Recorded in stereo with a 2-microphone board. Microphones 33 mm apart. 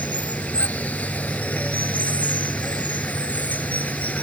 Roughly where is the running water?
Left.